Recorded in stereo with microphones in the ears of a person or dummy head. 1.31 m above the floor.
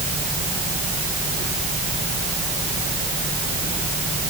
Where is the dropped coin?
No dropped coin in this recording.